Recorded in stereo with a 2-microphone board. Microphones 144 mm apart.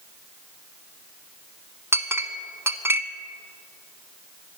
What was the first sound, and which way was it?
A clink, 15° right (ahead or behind).